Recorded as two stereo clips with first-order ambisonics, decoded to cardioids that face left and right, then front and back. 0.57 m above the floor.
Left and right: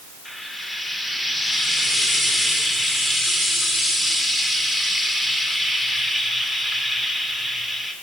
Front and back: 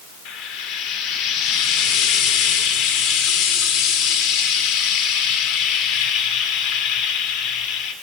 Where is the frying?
5° left, 1.9 m.